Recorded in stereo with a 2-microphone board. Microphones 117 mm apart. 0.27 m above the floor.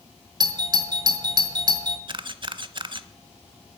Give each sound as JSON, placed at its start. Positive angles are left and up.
{"t": 0.4, "sound": "a doorbell", "side_deg": -40, "distance_m": 1.7}
{"t": 2.1, "sound": "a camera shutter", "side_deg": -45, "distance_m": 0.6}